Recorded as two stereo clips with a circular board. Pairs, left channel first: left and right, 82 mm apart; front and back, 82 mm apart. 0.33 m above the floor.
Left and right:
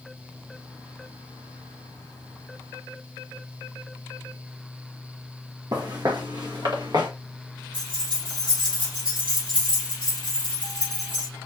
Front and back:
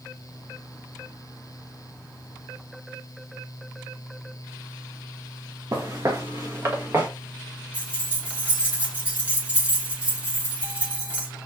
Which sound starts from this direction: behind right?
Footsteps, at 5.7 s.